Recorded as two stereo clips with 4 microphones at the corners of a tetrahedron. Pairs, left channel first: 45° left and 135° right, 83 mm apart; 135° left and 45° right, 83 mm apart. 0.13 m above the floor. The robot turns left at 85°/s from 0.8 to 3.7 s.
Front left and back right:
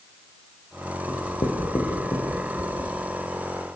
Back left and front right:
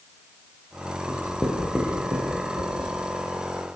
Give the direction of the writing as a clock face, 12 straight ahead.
9 o'clock.